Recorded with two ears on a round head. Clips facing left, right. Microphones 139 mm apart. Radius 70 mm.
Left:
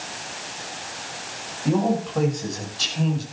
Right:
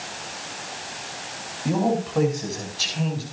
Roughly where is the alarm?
No alarm in this recording.